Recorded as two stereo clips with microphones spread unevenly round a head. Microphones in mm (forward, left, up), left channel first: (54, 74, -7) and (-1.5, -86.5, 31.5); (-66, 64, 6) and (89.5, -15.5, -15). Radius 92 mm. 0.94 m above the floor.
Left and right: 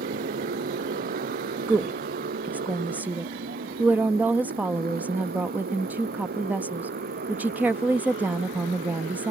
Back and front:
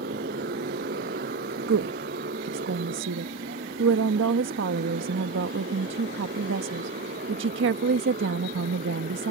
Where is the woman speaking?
25° right.